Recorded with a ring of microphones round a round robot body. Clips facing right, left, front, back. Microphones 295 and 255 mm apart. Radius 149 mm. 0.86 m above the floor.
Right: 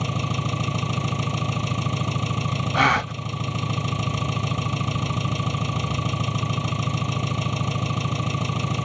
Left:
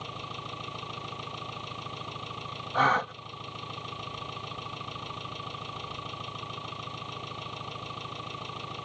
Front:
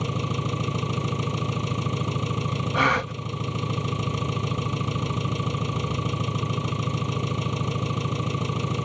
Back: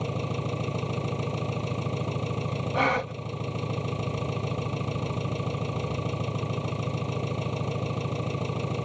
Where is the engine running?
75° right.